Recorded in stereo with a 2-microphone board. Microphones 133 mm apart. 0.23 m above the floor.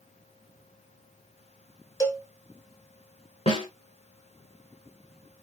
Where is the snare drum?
50° left (ahead or behind), 2.5 m.